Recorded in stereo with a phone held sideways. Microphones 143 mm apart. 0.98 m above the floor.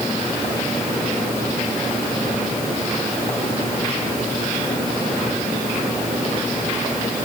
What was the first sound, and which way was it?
Only background noise.